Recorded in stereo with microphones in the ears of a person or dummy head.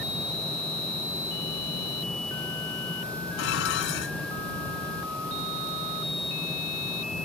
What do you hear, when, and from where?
3.4 s dishes clattering: 75° left (ahead or behind)